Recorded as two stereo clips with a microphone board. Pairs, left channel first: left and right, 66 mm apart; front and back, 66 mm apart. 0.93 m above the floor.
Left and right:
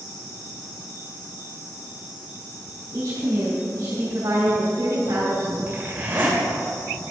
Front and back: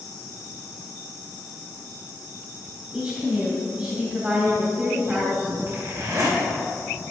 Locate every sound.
2.9 s a woman speaking: 115° right, 2.5 m
5.7 s a zipper: 150° right, 3 m